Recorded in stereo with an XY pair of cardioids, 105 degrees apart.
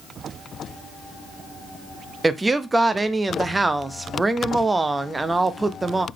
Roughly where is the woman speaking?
Ahead.